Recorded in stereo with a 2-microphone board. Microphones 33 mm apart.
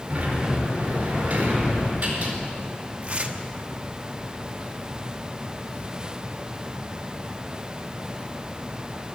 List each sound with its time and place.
0.1 s a sliding door: 40° right (ahead or behind), 4.5 m
3.0 s tearing paper: 40° right (ahead or behind), 1.0 m